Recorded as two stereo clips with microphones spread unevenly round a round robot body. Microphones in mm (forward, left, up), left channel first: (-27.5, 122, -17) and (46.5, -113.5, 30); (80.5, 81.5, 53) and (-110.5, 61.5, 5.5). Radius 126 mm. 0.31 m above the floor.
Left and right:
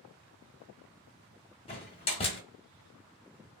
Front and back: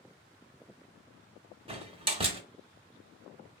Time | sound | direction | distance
1.7 | a door slam | 155° left | 1.0 m